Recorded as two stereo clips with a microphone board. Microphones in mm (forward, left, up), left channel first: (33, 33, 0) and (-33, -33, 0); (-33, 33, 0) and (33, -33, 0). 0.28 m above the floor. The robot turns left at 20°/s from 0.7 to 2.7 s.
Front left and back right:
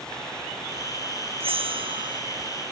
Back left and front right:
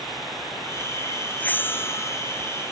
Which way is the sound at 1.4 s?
150° right.